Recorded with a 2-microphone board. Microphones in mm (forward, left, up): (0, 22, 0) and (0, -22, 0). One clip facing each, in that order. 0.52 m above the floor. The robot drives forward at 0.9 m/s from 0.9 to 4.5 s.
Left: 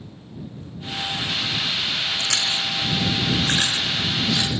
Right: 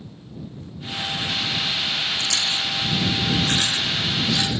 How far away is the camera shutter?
I don't hear a camera shutter.